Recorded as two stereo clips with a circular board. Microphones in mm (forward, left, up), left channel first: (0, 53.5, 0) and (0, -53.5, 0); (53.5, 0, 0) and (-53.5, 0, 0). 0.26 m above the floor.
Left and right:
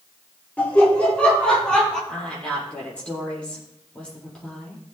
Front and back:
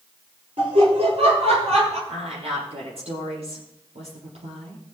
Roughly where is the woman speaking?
Behind.